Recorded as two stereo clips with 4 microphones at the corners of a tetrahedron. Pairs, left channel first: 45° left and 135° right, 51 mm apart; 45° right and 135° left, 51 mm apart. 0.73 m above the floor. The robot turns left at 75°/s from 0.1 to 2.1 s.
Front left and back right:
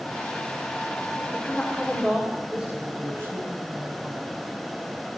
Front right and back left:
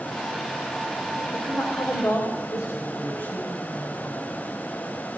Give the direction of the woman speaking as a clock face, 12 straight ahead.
12 o'clock.